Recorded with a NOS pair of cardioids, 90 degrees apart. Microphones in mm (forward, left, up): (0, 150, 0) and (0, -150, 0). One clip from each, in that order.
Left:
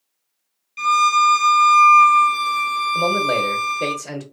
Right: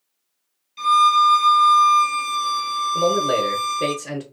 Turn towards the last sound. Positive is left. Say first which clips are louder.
# right 1 dB
turn(degrees=-5)